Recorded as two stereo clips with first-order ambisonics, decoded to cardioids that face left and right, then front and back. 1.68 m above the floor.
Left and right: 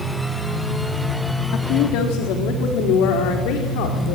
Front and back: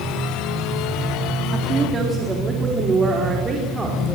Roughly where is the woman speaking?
Behind left.